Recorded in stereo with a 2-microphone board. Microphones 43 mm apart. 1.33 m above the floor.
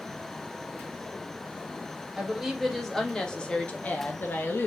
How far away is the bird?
I don't hear a bird.